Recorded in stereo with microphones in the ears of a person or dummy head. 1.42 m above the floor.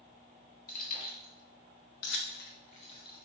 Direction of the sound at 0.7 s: 55° left (ahead or behind).